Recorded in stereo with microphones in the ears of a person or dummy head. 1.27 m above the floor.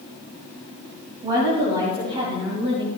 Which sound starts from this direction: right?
A woman speaking, at 1.2 s.